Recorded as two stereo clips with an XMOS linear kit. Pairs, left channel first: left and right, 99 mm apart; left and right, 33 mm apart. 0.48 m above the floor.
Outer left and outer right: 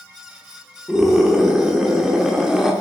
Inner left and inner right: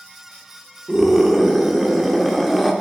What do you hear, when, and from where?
0.9 s a scream: 5° right (ahead or behind), 1.1 m